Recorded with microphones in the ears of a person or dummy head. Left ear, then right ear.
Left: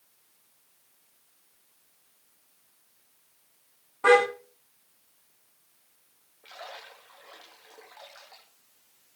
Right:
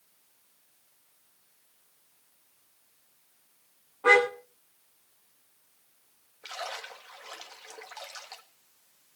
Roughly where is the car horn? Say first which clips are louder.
Left 1 dB; left.